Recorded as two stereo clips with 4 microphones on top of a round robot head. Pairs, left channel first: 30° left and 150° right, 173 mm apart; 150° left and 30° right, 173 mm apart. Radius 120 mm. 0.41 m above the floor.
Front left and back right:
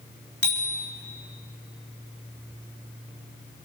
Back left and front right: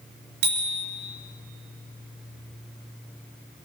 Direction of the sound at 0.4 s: 50° right.